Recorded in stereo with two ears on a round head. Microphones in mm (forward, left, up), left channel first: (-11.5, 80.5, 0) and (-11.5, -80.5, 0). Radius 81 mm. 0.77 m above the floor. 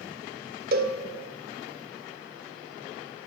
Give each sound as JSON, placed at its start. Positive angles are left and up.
{"t": 0.7, "sound": "a cowbell", "side_deg": -50, "distance_m": 1.5}